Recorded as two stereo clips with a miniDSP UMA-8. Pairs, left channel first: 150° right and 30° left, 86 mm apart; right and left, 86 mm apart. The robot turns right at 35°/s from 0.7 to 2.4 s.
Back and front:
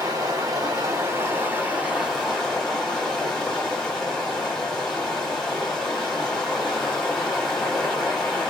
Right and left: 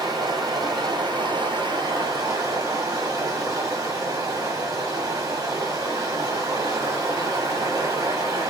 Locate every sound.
0.0 s running water: 70° left, 1.8 m; by 8.5 s 130° left, 1.8 m